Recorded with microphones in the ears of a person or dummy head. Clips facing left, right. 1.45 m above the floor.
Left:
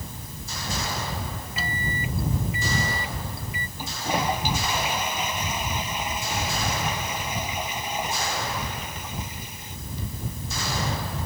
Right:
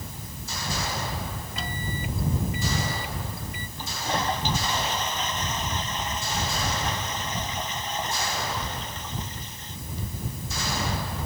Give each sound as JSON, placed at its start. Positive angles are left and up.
{"t": 1.6, "sound": "a microwave", "side_deg": 0}
{"t": 3.8, "sound": "a toilet flushing", "side_deg": 15}